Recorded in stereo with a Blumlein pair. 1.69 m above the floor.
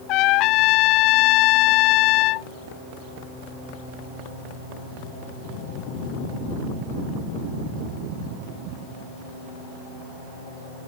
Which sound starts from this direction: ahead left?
A trumpet, at 0.1 s.